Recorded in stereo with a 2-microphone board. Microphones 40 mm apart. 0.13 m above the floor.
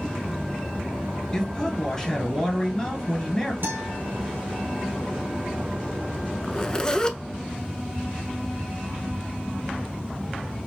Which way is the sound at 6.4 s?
20° left (ahead or behind).